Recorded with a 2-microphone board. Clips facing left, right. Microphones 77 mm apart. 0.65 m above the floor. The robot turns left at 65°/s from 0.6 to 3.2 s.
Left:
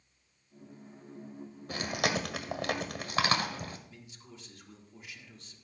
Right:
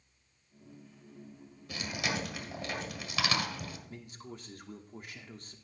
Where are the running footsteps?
No running footsteps in this recording.